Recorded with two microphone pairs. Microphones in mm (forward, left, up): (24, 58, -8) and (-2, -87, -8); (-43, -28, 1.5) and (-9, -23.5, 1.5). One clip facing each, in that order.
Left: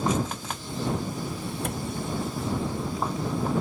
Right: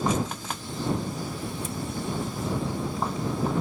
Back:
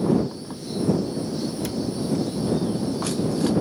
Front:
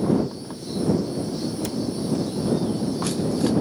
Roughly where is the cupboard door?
Left.